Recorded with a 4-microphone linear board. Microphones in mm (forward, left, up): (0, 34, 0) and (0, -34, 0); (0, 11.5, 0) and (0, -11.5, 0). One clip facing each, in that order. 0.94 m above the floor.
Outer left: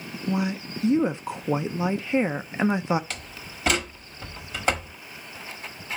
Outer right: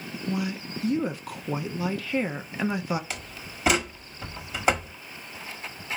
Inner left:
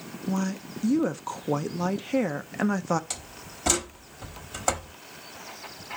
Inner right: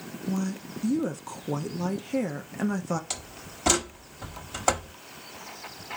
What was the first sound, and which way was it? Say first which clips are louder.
A woman speaking: outer left 3 dB, inner left 2 dB; 25° left (ahead or behind).